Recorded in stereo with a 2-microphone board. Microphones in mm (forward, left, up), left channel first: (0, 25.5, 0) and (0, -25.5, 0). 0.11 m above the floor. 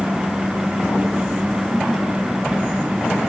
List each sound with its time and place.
Only background noise.